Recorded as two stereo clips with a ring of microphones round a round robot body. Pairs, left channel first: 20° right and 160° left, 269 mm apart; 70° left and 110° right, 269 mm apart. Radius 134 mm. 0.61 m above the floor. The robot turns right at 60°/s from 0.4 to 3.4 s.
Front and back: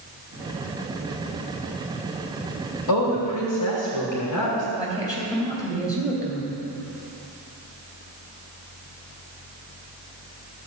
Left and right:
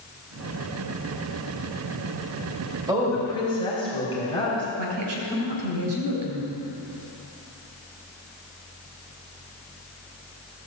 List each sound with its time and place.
2.9 s a woman speaking: 40° right, 3 m; by 4.7 s 5° right, 3 m
4.8 s a woman speaking: 100° right, 3 m